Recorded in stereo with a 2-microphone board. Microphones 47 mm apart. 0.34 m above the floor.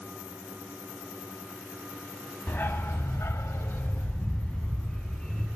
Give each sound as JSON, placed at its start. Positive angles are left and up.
{"t": 2.5, "sound": "a dog barking", "side_deg": 45, "distance_m": 0.7}